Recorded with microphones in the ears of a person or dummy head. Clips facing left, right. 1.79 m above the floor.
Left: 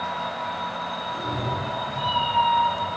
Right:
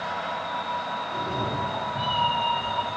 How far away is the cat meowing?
About 2 m.